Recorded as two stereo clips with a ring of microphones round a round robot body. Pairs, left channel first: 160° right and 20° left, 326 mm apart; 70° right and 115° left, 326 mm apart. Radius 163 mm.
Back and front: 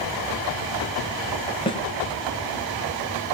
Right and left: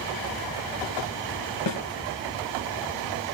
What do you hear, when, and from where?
1.7 s a snare drum: 85° right, 2.5 m